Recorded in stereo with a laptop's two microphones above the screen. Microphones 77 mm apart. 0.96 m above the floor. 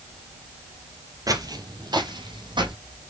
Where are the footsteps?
45° right (ahead or behind), 1.5 m; by 2.8 s 70° right (ahead or behind), 3 m.